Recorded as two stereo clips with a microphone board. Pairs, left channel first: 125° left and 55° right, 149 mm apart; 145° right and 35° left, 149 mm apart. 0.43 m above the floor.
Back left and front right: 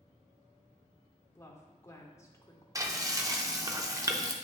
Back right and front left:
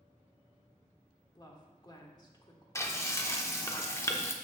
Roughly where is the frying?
Right.